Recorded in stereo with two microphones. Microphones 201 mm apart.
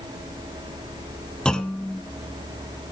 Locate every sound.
1.4 s a clunk: 5° left (ahead or behind), 0.7 m